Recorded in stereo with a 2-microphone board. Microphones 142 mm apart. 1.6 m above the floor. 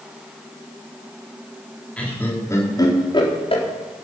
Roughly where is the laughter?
Centre.